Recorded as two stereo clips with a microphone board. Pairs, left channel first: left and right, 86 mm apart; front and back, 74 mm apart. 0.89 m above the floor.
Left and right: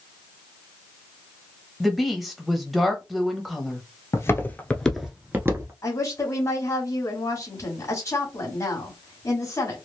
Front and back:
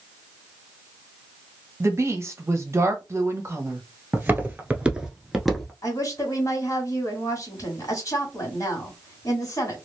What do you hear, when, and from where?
1.8 s a woman speaking: 175° right, 1.0 m
4.1 s footsteps: 125° left, 1.1 m; by 5.7 s 85° right, 1.0 m
5.8 s a woman speaking: 35° left, 1.8 m